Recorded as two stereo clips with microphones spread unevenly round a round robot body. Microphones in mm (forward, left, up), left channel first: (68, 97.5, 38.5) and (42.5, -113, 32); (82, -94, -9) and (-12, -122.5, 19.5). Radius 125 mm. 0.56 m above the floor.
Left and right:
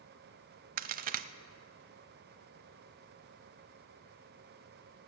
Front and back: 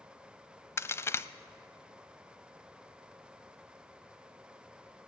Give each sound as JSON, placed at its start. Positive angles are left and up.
{"t": 0.8, "sound": "a crack", "azimuth_deg": -55, "distance_m": 0.5}